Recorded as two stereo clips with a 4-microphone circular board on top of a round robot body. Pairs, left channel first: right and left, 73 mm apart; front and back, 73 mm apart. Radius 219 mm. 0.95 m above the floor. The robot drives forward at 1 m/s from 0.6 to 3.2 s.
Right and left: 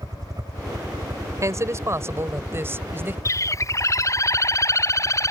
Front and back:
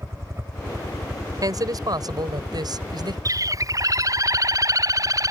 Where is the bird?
140° right.